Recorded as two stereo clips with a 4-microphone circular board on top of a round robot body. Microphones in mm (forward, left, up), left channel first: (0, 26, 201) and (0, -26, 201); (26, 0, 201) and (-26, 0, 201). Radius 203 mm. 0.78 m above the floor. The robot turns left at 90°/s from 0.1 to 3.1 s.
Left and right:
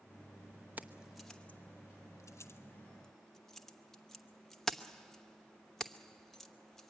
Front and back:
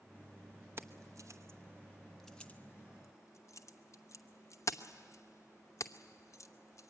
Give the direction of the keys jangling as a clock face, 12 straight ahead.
5 o'clock.